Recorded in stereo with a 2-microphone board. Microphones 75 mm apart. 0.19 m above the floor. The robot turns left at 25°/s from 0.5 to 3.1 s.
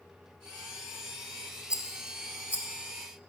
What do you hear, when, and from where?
1.7 s a rattle: 15° right (ahead or behind), 0.5 m; by 2.7 s 25° right (ahead or behind), 0.5 m